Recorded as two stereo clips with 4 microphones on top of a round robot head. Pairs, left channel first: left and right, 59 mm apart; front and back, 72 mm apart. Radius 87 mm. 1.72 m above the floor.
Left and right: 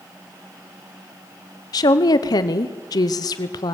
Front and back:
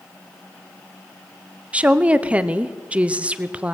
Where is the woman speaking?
105° left, 1.0 m.